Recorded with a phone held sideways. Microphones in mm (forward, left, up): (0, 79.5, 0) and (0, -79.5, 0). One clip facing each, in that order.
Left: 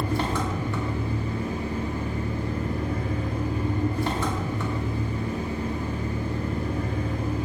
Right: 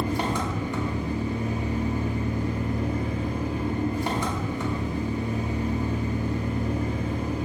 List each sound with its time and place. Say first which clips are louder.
0.0 s an engine running: even; 15° right (ahead or behind), 0.9 m